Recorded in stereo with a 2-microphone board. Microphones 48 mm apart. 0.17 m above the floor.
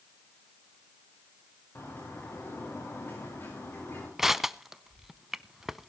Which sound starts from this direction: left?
A bird, at 1.8 s.